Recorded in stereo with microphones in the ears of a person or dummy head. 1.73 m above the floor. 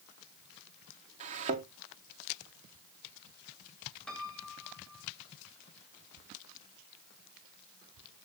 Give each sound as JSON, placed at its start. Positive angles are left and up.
{"t": 1.2, "sound": "a thud", "side_deg": -40, "distance_m": 1.9}
{"t": 4.1, "sound": "a piano", "side_deg": 5, "distance_m": 2.5}